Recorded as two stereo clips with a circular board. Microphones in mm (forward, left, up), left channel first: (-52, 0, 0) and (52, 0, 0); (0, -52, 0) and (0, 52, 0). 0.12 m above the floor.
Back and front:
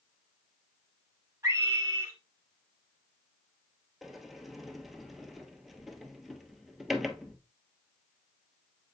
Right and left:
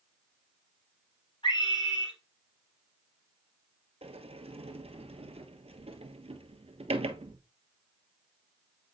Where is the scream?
55° right, 3 m.